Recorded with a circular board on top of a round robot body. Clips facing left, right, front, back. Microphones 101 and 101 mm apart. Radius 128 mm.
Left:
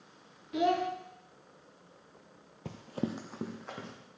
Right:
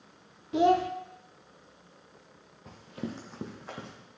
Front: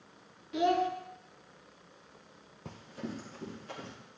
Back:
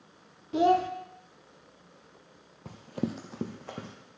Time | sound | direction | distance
0.5 | a child speaking | 135° right | 0.5 m
2.6 | running footsteps | 90° left | 0.5 m